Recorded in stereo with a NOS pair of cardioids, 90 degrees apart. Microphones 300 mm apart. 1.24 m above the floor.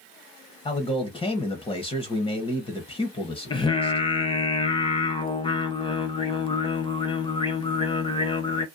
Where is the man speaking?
15° left, 0.6 m.